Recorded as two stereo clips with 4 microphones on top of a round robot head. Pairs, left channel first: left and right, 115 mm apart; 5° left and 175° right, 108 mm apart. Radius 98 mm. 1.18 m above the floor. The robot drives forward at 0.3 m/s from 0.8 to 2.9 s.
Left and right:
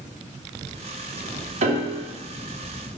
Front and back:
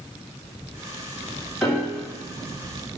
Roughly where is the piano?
Right.